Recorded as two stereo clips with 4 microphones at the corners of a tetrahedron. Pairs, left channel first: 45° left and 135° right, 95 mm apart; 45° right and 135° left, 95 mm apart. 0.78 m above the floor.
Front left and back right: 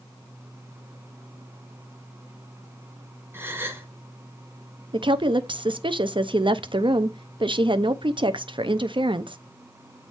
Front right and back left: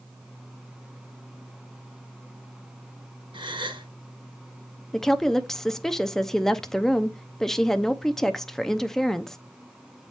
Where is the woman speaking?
130° right, 0.6 m.